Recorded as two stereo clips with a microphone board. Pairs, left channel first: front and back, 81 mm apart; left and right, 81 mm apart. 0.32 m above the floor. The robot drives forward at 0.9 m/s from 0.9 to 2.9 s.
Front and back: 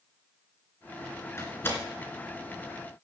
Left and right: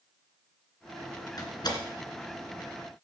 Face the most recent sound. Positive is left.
turn(degrees=90)